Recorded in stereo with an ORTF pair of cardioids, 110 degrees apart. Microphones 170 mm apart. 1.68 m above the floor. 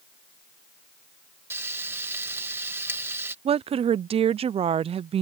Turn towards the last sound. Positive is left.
turn(degrees=-35)